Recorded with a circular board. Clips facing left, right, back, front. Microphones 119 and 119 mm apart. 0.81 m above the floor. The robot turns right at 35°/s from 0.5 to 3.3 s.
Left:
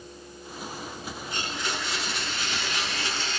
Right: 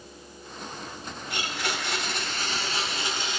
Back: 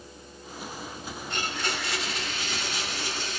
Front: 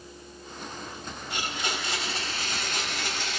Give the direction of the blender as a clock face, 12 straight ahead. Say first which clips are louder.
Right 1 dB, back 1 dB; 3 o'clock.